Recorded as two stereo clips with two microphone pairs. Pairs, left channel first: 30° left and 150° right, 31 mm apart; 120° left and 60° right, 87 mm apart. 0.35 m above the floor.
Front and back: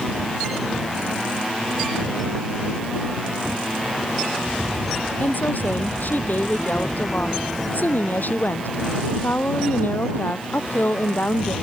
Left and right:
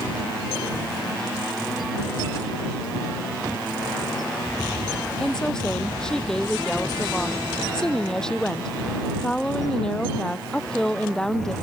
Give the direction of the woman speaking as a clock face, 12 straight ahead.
11 o'clock.